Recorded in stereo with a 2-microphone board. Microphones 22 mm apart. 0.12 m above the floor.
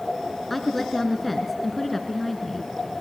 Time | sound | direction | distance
0.5 | a woman speaking | 5° left (ahead or behind) | 1.6 m